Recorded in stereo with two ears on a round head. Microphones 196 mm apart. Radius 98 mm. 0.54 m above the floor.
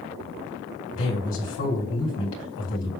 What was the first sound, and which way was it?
A man speaking, 60° left (ahead or behind).